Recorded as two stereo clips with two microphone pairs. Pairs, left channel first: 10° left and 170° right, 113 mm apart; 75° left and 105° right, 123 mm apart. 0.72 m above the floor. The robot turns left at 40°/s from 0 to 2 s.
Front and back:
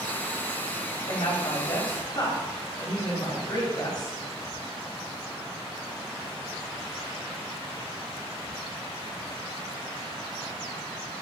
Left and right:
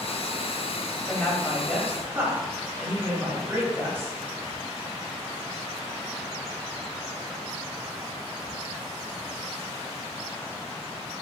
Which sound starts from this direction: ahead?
A woman speaking, at 1.1 s.